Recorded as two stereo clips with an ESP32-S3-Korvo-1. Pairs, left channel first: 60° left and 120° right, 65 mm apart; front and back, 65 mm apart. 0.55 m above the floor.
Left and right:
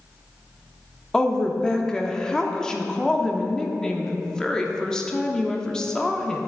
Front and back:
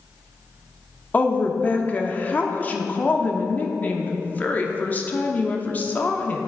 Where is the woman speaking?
5° right, 0.7 m.